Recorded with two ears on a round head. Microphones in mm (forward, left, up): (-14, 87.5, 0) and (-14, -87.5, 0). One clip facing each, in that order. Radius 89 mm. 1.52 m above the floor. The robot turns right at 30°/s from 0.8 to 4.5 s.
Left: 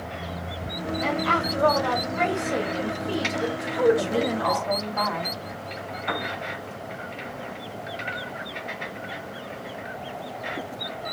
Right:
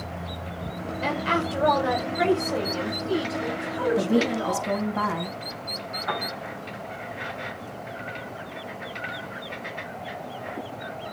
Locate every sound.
1.0 s a woman speaking: 40° right, 5.5 m; by 4.7 s 65° left, 5.5 m
4.0 s a woman speaking: 55° right (ahead or behind), 3 m; by 5.4 s 40° right (ahead or behind), 3 m
6.1 s a piano: 35° left (ahead or behind), 6 m